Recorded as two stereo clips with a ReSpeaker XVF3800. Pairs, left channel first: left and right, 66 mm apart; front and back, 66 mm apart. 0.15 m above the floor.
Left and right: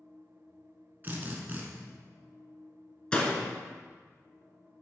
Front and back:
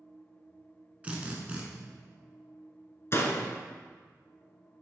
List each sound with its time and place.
1.0 s a drill: 125° right, 1.2 m
3.1 s a door slam: 20° left, 1.1 m